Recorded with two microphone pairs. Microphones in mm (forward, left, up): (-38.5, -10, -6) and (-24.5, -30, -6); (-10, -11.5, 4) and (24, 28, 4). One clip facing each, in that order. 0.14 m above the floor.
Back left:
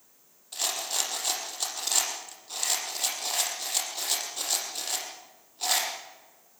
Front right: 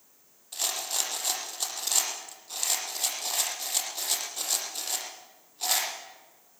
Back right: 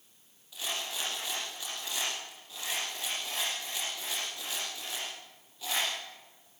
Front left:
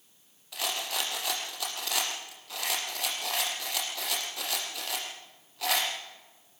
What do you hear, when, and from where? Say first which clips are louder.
0.5 s a rattle: back left 1 dB, front left 4 dB; 40° left, 5.5 m